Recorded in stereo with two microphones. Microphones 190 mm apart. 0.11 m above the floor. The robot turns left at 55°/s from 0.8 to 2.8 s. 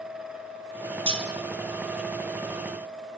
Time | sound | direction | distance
1.1 | cutlery clinking | 25° right (ahead or behind) | 1.9 m